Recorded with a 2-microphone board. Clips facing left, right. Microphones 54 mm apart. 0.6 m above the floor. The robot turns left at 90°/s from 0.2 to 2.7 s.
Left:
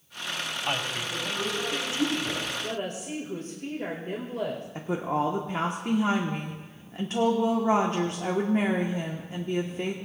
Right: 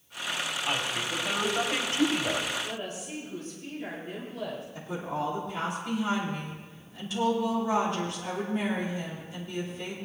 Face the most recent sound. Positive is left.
turn(degrees=50)  # may be behind; listen again after turning